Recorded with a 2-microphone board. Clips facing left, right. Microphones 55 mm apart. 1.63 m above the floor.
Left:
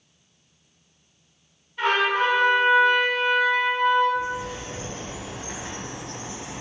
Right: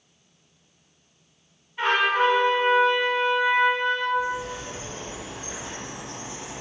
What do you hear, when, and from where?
1.8 s a trumpet: 15° right (ahead or behind), 1.5 m
4.2 s a bird: 65° left (ahead or behind), 0.7 m